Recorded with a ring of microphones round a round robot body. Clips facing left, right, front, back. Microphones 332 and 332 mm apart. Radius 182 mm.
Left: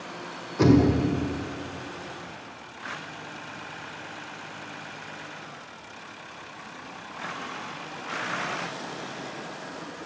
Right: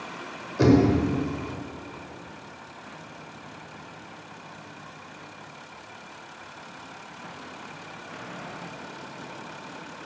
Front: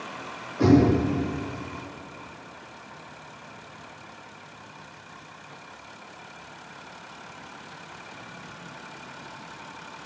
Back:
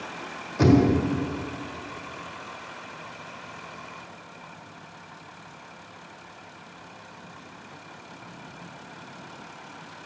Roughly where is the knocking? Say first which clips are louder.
Even, front 1 dB; behind.